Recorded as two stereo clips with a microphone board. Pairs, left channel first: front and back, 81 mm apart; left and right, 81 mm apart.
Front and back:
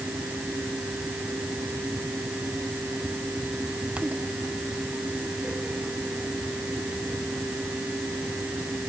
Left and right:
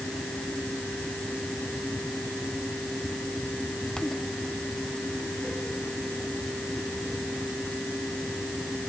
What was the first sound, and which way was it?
Only background noise.